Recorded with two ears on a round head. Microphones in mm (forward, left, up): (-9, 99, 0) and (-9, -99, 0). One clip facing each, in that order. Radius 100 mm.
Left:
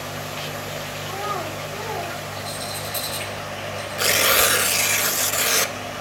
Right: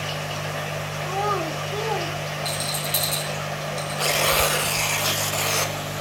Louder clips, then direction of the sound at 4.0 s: Left 1 dB; 20° left (ahead or behind).